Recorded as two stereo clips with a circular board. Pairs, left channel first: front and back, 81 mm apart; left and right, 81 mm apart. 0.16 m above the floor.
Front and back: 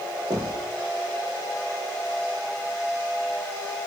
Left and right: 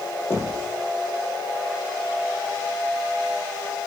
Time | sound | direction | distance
0.3 | knocking | 150° left | 4.5 m